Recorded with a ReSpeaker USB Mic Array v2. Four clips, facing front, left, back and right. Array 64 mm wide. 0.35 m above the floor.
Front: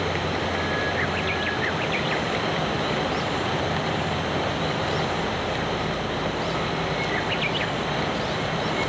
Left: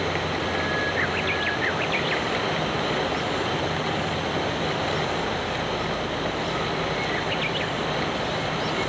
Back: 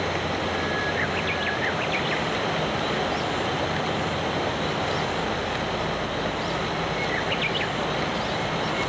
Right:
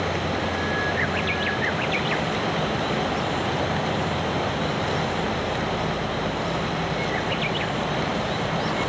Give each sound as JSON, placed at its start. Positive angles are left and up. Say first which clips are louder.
{"t": 0.0, "sound": "an insect", "louder": "right 1 dB, front 1 dB", "azimuth_deg": -95, "distance_m": 0.9}